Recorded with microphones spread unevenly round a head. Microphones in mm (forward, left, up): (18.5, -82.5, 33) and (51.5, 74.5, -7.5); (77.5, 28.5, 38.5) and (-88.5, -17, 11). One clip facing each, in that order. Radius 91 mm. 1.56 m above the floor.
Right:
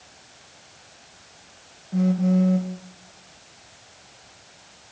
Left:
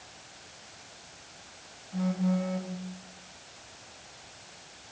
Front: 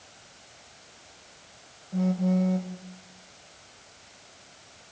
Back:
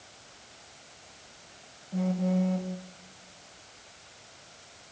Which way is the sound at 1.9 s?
75° right.